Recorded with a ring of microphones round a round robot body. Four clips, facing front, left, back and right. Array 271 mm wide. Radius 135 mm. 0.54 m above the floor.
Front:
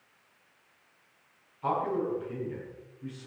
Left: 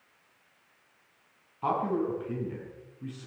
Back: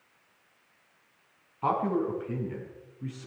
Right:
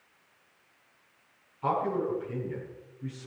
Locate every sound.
1.6 s a man speaking: 155° left, 5 m